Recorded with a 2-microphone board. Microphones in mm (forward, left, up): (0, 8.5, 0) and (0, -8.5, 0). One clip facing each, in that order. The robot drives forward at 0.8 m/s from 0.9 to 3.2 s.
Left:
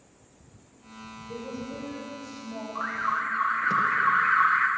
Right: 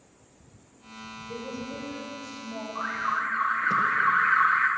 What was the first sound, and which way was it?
A woman speaking, 25° right (ahead or behind).